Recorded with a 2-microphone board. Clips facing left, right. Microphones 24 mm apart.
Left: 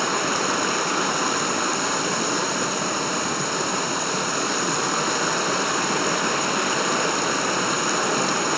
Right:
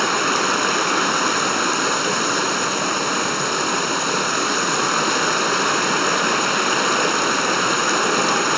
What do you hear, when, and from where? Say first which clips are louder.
0.0 s running water: right 4 dB; 25° right (ahead or behind), 1.1 m